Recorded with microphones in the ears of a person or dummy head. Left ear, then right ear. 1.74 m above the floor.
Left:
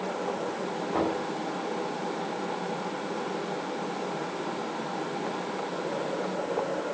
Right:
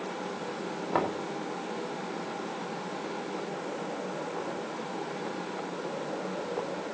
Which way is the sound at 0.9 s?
55° right (ahead or behind).